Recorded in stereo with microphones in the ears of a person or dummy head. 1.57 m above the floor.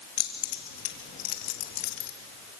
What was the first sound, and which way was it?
Keys jangling, 45° left (ahead or behind).